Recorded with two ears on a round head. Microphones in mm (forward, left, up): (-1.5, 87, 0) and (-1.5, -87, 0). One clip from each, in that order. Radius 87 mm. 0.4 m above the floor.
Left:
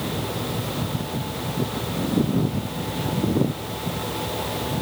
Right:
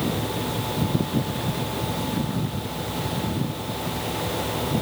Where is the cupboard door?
I don't hear a cupboard door.